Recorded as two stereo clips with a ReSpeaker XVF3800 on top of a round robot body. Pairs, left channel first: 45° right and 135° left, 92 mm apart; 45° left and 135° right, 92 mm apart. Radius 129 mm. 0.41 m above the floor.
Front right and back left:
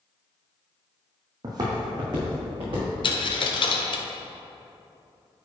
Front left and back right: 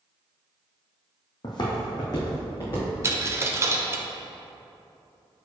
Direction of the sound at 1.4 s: 85° left.